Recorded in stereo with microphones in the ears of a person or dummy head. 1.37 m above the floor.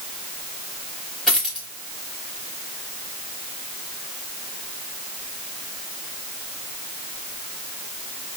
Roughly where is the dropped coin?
Centre.